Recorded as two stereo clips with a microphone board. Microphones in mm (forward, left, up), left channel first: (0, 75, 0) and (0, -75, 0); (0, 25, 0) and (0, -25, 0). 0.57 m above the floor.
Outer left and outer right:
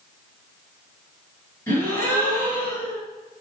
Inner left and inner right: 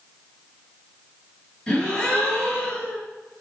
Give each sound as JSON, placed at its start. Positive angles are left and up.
{"t": 1.7, "sound": "a gasp", "side_deg": 15, "distance_m": 4.5}